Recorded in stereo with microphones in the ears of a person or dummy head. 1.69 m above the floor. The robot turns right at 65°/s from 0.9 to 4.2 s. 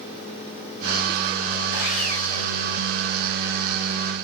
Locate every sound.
1.7 s sawing: 120° left, 5.5 m; by 2.6 s straight behind, 5.5 m